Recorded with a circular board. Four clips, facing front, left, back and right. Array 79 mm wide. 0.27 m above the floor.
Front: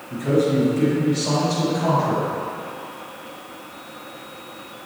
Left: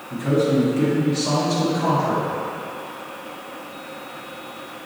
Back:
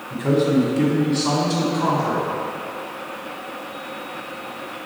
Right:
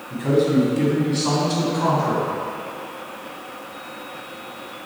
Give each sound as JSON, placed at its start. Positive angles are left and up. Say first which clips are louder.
{"t": 0.1, "sound": "a man speaking", "louder": "right 1 dB, back 1 dB", "azimuth_deg": -160, "distance_m": 1.6}